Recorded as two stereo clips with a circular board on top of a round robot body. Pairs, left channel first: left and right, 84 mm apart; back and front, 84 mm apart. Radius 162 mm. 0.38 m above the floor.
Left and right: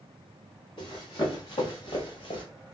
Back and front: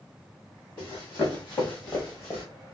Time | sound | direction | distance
0.8 | running footsteps | 125° left | 3 m